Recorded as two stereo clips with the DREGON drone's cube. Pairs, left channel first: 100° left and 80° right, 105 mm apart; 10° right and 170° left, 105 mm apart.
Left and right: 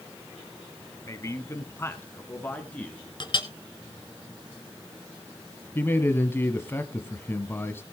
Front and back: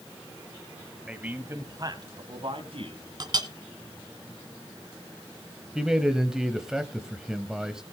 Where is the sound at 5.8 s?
95° left, 1.0 m.